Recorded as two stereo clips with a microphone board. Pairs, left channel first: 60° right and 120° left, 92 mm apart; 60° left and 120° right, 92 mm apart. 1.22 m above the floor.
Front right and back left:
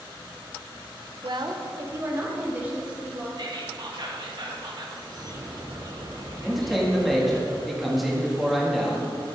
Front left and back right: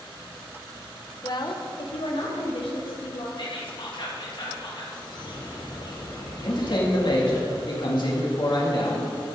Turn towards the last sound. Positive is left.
turn(degrees=30)